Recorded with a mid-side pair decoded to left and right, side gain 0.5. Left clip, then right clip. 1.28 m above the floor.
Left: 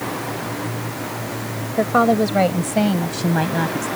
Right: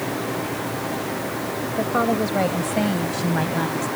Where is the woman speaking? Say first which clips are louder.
Left 6 dB; 35° left; by 3.9 s 20° left.